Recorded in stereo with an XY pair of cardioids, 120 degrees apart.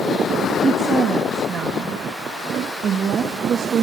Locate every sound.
0.6 s a woman speaking: 50° right, 1.5 m